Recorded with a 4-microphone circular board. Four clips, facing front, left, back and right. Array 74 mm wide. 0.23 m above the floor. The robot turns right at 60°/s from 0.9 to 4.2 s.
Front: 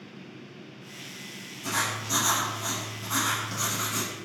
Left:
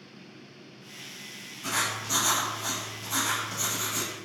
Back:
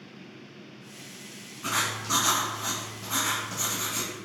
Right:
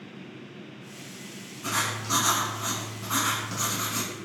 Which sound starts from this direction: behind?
Writing, at 1.6 s.